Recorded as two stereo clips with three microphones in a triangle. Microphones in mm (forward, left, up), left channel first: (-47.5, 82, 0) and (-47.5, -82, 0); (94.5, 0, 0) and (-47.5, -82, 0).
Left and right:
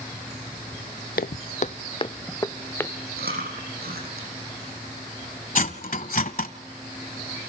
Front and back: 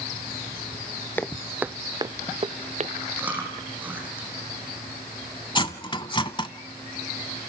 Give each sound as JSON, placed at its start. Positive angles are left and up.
{"t": 1.2, "sound": "footsteps", "azimuth_deg": 105, "distance_m": 0.6}
{"t": 3.2, "sound": "chewing", "azimuth_deg": -70, "distance_m": 7.0}
{"t": 5.5, "sound": "cutlery clinking", "azimuth_deg": 85, "distance_m": 1.2}